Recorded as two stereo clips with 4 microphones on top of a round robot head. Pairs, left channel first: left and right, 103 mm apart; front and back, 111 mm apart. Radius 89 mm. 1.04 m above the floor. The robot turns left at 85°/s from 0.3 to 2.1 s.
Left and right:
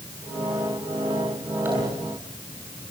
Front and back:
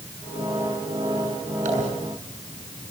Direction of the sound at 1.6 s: 165° right.